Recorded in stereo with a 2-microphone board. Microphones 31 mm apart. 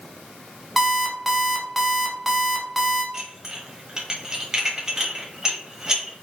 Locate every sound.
0.8 s an alarm clock: 5° right (ahead or behind), 1.1 m
3.1 s dishes clattering: 20° right (ahead or behind), 1.1 m